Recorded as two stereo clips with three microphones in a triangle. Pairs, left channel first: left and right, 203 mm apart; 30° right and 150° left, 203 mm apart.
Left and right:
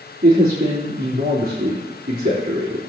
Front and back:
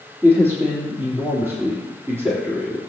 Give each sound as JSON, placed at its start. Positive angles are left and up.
{"t": 0.2, "sound": "a man speaking", "azimuth_deg": -130, "distance_m": 3.5}